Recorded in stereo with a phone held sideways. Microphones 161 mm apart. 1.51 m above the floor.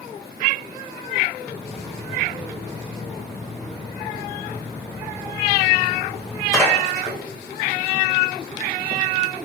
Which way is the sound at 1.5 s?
15° left (ahead or behind).